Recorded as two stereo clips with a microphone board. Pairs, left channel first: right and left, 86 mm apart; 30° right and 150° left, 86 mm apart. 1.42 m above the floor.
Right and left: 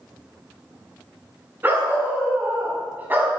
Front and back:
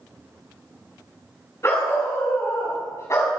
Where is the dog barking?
25° left, 6 m.